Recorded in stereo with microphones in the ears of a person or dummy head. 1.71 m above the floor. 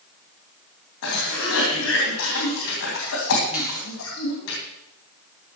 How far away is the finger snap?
About 3.5 m.